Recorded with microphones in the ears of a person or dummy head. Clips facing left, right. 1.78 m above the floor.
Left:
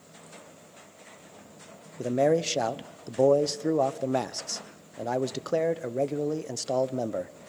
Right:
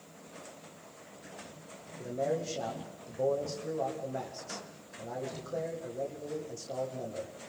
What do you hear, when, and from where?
2.0 s a man speaking: 80° left, 1.2 m